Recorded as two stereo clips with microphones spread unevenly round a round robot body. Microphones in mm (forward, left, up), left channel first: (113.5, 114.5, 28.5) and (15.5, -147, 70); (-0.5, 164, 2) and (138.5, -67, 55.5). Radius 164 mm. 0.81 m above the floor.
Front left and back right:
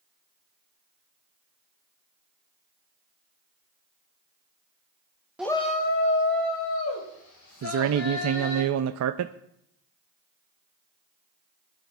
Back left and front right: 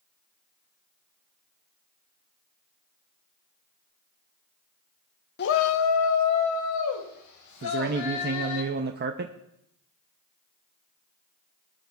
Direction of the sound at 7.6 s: 110° right.